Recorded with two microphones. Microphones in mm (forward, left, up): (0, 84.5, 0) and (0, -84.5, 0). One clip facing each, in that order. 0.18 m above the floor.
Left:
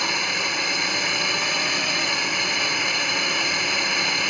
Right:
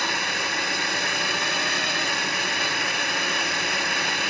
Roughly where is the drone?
Centre.